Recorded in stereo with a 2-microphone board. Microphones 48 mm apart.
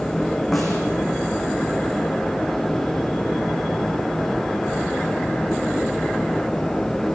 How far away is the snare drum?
About 8.5 m.